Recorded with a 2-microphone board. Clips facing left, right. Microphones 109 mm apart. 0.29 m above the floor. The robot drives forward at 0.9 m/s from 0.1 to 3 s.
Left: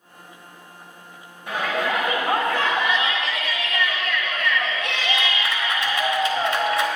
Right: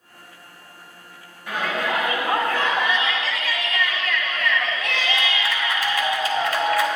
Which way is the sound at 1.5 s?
20° left (ahead or behind).